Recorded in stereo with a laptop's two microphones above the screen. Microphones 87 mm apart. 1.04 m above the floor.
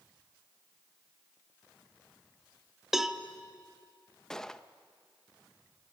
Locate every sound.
2.9 s a cowbell: 5° right (ahead or behind), 1.1 m
4.3 s a gunshot: 5° left (ahead or behind), 0.5 m